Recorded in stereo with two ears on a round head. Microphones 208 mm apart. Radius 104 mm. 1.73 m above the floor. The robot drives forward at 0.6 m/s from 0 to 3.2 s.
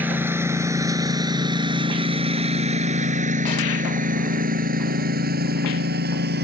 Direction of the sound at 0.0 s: 10° right (ahead or behind).